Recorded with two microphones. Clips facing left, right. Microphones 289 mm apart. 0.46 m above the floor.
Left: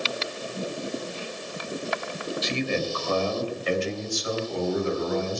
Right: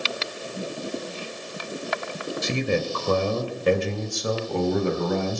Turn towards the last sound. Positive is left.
turn(degrees=-65)  # may be behind; listen again after turning